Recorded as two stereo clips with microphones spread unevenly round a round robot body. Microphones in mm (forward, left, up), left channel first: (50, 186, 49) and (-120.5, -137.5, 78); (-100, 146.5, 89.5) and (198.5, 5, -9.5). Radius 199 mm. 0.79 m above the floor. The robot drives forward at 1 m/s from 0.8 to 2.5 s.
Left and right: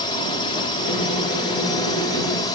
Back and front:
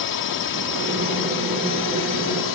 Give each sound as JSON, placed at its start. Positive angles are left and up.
{"t": 0.0, "sound": "a drone", "azimuth_deg": 135}